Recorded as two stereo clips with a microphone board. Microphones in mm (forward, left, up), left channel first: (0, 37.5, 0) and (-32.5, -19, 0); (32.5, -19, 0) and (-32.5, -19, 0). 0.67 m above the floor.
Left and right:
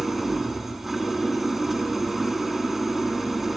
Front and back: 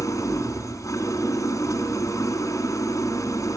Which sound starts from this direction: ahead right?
An engine running, at 0.0 s.